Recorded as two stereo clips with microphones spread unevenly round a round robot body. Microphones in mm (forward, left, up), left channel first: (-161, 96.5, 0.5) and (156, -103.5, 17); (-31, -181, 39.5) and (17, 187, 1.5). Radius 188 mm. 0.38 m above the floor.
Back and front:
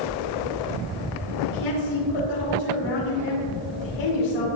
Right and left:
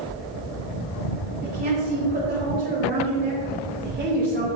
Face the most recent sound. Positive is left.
turn(degrees=145)